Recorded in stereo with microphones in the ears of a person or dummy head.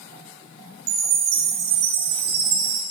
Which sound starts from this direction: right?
A chime, at 0.9 s.